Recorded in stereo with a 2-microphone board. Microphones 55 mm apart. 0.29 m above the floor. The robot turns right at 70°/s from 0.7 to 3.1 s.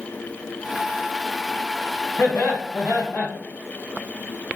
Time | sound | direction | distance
2.2 | laughter | 70° left | 1.9 m